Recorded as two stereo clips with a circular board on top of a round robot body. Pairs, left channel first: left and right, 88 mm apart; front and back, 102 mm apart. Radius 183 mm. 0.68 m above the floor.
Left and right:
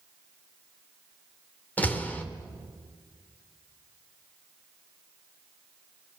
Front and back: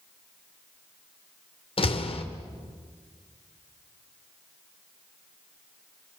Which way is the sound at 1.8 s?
20° left.